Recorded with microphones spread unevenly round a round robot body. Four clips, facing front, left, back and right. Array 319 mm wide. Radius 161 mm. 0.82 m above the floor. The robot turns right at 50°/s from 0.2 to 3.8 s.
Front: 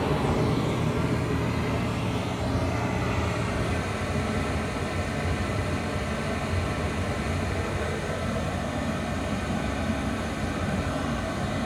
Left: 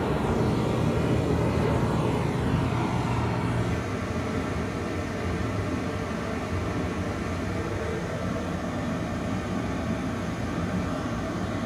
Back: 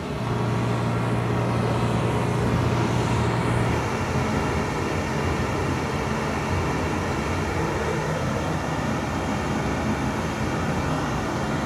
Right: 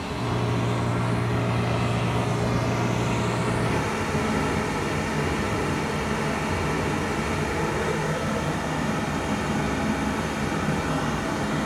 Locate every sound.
0.0 s running water: 45° left, 3 m; by 11.7 s 135° right, 3 m